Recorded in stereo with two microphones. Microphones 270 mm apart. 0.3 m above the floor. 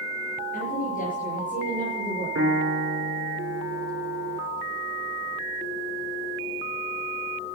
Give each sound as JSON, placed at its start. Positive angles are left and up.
{"t": 0.5, "sound": "a woman speaking", "side_deg": 30, "distance_m": 6.0}
{"t": 2.4, "sound": "a piano", "side_deg": -60, "distance_m": 2.5}